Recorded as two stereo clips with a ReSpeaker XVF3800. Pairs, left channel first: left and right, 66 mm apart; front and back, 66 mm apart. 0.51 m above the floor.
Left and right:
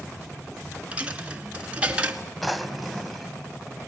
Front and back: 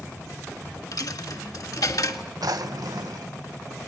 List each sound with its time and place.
0.9 s a dropped coin: 20° right, 1.6 m
2.4 s a drawer: straight behind, 0.9 m